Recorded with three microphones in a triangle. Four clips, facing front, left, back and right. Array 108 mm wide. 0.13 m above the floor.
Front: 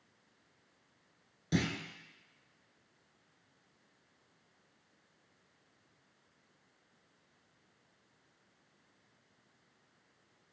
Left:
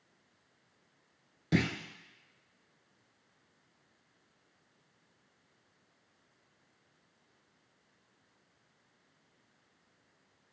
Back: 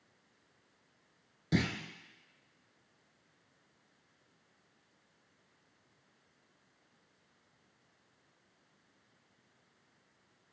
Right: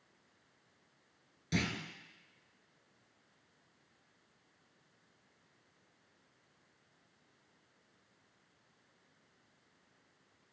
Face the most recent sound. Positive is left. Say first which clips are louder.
# left 6 dB, back 1 dB
turn(degrees=95)